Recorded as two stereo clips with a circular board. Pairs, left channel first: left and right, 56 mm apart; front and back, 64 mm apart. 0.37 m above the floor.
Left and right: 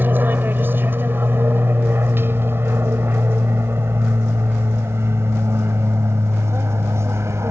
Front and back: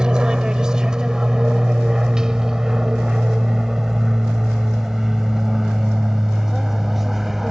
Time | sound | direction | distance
0.0 | an aircraft | 110° right | ?